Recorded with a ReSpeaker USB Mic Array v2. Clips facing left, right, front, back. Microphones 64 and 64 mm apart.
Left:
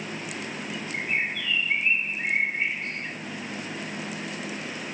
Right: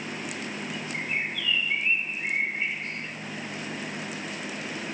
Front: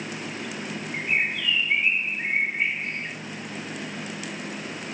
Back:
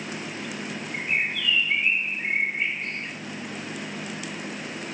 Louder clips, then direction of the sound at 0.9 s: Left 3 dB, front 1 dB; 70° left.